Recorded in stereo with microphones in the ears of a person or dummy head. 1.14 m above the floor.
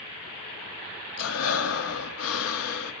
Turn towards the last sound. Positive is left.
turn(degrees=80)